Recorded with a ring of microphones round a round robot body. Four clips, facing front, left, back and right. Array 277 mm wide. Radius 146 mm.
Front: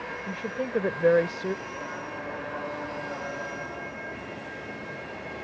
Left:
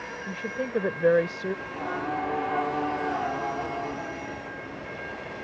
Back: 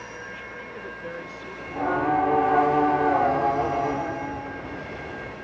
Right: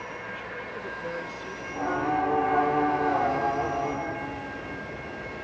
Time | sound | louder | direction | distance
0.3 | a woman speaking | left 5 dB, front 7 dB | 45° left | ?
1.6 | singing | right 3 dB, back 12 dB | 165° right | ?